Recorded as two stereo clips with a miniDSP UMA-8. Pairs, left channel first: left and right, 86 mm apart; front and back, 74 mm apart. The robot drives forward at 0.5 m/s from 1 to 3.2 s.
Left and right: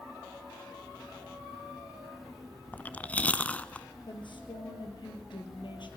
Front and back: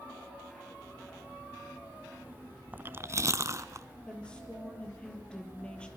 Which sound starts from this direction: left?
A woman speaking, at 4.1 s.